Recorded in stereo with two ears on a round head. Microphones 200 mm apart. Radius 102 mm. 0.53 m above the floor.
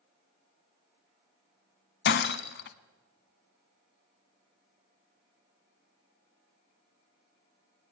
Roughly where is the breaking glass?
Left.